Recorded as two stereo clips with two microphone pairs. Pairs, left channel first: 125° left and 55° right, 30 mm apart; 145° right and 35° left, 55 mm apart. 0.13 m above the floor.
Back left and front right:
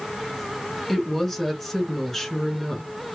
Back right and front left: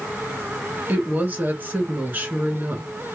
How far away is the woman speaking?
About 2.0 m.